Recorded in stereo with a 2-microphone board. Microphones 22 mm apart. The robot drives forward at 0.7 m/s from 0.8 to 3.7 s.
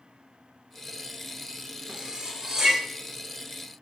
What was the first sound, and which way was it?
Cutlery clinking, 35° right (ahead or behind).